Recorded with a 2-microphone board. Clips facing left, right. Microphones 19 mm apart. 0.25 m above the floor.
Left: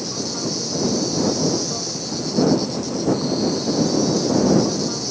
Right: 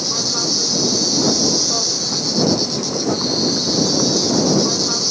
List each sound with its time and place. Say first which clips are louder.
0.0 s an insect: right 6 dB; 40° right (ahead or behind)